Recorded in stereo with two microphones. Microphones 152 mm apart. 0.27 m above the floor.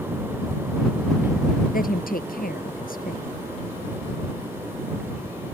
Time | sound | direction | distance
1.7 | a woman speaking | 75° left (ahead or behind) | ?